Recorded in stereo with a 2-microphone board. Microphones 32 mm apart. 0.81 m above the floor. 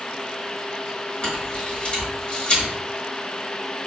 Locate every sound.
1.2 s a camera shutter: 35° left (ahead or behind), 1.3 m